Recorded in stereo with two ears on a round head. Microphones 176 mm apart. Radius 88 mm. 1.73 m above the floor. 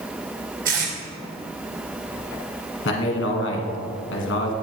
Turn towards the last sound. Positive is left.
turn(degrees=65)  # may be behind; listen again after turning